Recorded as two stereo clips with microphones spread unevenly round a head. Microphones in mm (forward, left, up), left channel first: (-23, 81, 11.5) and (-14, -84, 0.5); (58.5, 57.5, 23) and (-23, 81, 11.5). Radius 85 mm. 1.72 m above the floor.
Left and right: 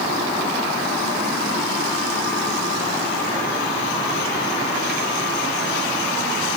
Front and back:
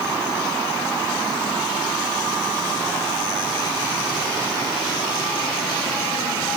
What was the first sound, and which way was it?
Only background noise.